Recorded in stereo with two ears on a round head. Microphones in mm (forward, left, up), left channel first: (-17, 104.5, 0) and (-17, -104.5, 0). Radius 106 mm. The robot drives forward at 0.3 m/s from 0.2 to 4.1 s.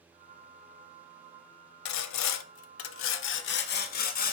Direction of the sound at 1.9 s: 80° left.